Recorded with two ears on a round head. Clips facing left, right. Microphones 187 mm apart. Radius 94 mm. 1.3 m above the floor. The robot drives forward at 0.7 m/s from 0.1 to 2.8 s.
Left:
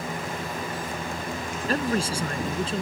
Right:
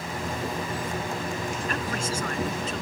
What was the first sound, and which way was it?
A man speaking, 30° left (ahead or behind).